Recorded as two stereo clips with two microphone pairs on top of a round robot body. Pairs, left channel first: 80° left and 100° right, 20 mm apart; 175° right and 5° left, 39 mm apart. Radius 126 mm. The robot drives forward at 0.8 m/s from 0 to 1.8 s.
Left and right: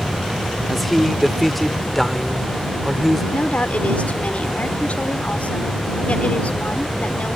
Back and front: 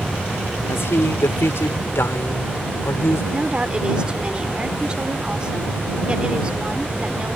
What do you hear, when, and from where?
0.7 s a man speaking: 170° left
3.3 s a woman speaking: 75° left